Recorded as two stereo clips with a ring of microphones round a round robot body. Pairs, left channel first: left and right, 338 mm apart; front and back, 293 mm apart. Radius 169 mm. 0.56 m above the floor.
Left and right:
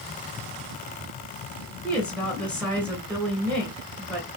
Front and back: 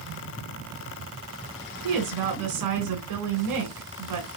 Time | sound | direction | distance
1.8 | a woman speaking | 175° left | 2.5 m